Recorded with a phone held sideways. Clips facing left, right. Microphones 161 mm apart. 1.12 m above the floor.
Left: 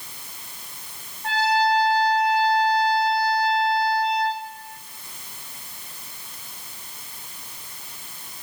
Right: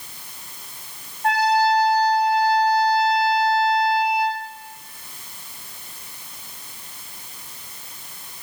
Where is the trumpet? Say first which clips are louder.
Right 3 dB; 75° right (ahead or behind), 5.5 m.